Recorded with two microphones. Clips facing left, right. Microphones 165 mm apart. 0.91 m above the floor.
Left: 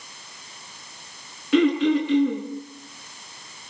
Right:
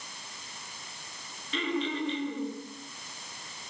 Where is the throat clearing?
85° left, 7 m.